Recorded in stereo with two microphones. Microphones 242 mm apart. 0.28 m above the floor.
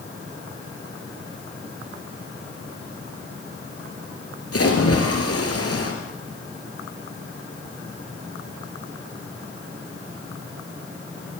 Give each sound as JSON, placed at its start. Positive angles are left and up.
{"t": 4.5, "sound": "a splash", "side_deg": 75, "distance_m": 5.0}